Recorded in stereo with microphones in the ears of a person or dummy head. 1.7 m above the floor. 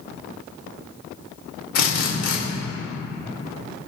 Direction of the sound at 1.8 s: 60° left (ahead or behind).